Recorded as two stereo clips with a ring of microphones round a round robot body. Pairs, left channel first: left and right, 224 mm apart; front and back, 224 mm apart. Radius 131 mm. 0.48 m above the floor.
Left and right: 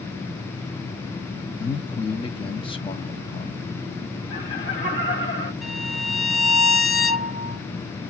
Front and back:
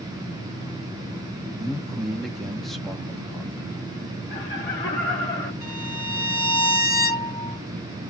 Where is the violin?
5° right, 1.3 m.